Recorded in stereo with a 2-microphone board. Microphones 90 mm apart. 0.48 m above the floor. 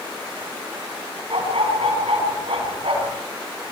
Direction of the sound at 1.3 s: 80° right.